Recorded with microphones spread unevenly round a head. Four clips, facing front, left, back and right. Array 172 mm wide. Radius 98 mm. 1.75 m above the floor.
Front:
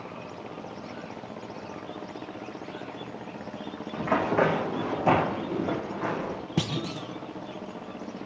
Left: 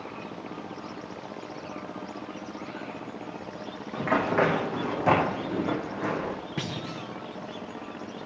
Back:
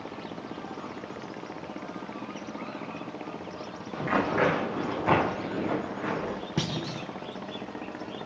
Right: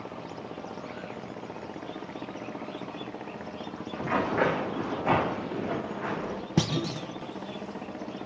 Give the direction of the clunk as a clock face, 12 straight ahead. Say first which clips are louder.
Right 6 dB, front 4 dB; 3 o'clock.